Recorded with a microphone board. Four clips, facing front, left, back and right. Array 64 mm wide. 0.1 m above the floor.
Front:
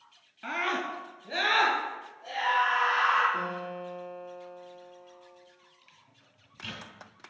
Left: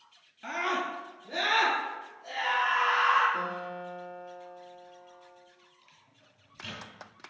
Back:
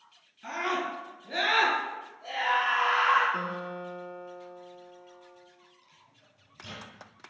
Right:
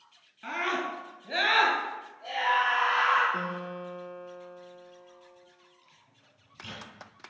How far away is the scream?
About 1.6 m.